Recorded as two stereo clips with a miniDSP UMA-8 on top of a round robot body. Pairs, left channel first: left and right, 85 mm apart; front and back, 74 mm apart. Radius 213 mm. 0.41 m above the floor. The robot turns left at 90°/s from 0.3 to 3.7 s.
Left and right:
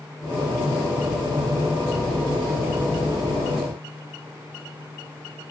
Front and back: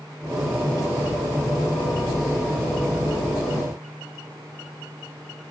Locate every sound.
Only background noise.